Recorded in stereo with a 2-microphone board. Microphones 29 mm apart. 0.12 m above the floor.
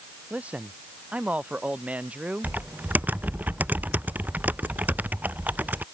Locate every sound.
0.3 s a man speaking: 50° right (ahead or behind)
2.4 s typing on a keyboard: 75° right (ahead or behind)